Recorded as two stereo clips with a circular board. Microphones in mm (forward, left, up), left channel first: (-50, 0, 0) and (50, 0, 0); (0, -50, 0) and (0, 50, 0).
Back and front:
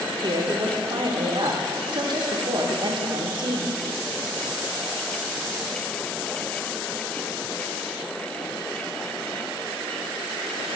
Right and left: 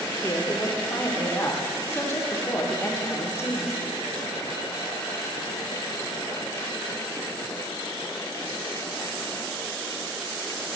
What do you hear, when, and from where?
0.2 s a woman speaking: 30° right, 0.7 m